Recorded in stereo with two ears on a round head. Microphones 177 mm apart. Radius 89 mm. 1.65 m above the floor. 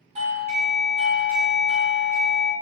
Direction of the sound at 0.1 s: 35° right (ahead or behind).